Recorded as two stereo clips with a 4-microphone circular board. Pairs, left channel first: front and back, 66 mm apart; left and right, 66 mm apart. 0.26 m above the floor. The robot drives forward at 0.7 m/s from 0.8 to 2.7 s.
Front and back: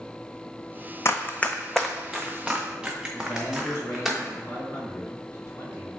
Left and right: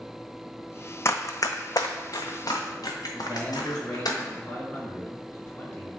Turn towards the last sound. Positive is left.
turn(degrees=40)